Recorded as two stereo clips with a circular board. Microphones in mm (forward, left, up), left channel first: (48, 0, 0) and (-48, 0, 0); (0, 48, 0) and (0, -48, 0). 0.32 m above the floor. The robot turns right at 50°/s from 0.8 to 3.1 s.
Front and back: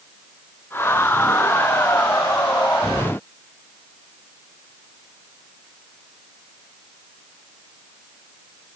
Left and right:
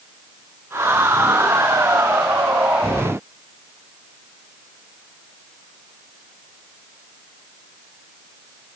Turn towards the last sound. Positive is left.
No sound to turn to.